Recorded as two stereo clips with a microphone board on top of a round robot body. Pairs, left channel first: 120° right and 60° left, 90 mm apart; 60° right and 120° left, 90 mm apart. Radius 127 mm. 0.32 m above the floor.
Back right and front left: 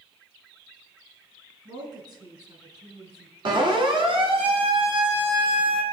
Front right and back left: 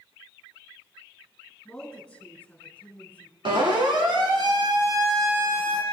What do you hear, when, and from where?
1.6 s a woman speaking: 20° left, 5 m; by 3.4 s 15° left, 4 m
3.5 s a siren: 90° left, 4 m; by 5.8 s 50° left, 3 m